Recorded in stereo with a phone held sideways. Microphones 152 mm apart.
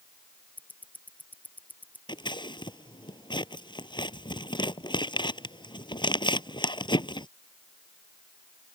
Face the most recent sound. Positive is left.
turn(degrees=30)  # may be behind; listen again after turning